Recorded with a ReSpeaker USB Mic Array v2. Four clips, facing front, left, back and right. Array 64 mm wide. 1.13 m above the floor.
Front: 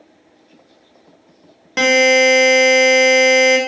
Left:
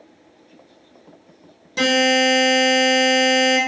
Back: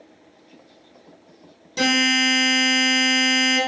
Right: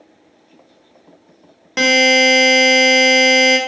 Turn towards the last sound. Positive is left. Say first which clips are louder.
# right 4 dB, front 8 dB
turn(degrees=-40)